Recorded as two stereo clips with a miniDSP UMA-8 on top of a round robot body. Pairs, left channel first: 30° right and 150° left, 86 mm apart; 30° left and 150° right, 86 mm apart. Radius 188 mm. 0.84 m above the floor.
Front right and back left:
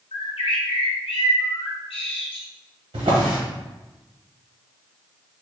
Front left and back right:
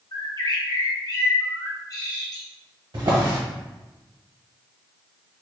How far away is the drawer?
About 1.5 m.